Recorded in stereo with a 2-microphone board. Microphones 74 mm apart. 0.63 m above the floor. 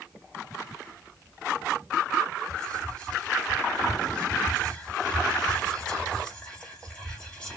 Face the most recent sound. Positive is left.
turn(degrees=10)  # may be behind; listen again after turning